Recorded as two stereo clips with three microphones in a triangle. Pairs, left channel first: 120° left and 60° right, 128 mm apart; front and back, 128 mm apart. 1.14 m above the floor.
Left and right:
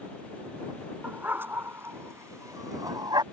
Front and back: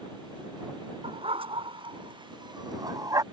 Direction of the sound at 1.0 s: 135° right.